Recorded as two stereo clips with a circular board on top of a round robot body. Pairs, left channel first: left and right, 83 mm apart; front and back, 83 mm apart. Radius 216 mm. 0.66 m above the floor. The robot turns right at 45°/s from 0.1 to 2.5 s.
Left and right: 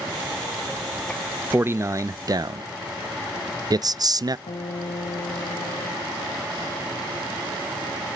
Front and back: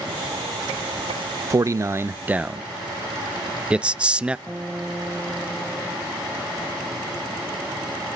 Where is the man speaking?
150° right, 0.7 m; by 4.4 s 105° right, 0.7 m.